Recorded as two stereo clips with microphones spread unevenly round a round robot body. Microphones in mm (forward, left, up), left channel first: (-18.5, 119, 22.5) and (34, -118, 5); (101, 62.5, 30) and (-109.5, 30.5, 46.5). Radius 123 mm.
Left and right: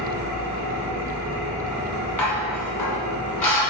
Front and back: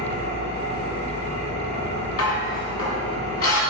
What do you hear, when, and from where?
0.0 s an engine running: 70° right, 2 m
2.2 s dishes clattering: 20° left, 1.7 m